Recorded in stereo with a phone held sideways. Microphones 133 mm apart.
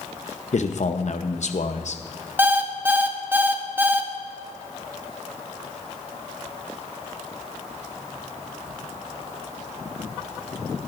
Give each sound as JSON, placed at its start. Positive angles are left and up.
{"t": 0.5, "sound": "a man speaking", "side_deg": 60, "distance_m": 0.8}
{"t": 2.4, "sound": "an alarm clock", "side_deg": -15, "distance_m": 0.8}